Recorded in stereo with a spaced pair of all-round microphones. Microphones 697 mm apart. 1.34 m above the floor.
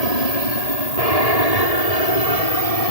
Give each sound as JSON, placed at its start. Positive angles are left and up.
{"t": 0.0, "sound": "an aircraft", "side_deg": 60}